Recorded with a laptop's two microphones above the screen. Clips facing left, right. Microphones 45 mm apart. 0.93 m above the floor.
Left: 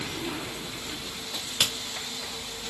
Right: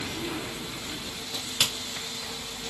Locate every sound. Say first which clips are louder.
1.3 s a crack: even; 10° left (ahead or behind), 1.1 m